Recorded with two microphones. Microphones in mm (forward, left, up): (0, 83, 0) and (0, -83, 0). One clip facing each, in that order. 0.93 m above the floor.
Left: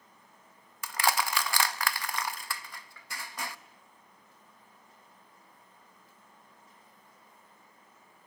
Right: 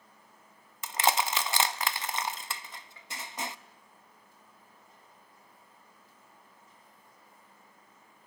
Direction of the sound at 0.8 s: 20° right (ahead or behind).